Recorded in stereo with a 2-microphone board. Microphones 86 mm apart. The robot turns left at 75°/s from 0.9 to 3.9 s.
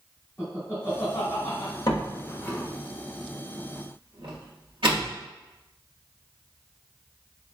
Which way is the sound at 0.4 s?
30° left (ahead or behind).